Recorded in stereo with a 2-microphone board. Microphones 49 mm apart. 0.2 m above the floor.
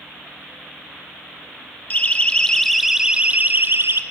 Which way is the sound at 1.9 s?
30° left (ahead or behind).